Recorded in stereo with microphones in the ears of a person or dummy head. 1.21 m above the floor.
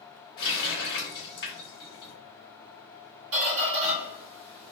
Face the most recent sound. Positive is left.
turn(degrees=-65)  # may be behind; listen again after turning